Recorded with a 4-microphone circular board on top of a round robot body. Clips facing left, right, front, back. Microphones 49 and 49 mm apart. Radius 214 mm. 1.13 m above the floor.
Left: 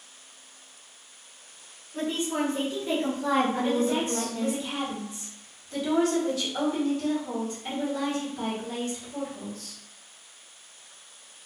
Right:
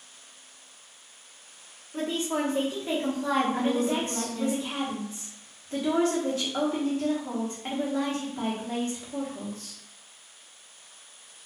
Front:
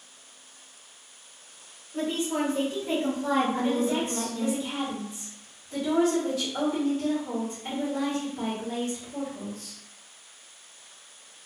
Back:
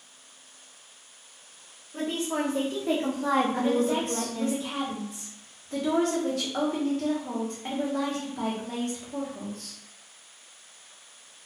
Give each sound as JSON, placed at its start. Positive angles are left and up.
{"t": 1.9, "sound": "a woman speaking", "azimuth_deg": -125, "distance_m": 1.0}
{"t": 3.5, "sound": "a woman speaking", "azimuth_deg": -145, "distance_m": 1.0}